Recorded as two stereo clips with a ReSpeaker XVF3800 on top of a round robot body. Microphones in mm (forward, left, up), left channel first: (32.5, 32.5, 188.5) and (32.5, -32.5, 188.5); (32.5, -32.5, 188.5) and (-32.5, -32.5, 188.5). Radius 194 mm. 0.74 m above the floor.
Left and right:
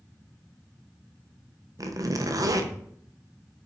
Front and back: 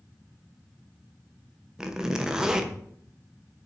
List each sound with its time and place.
1.8 s a zipper: 100° right, 1.0 m